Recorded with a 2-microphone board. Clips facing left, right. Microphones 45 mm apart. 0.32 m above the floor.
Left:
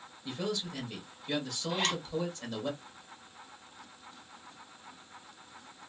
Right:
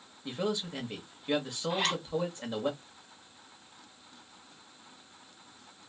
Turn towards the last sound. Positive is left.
turn(degrees=-5)  # may be behind; listen again after turning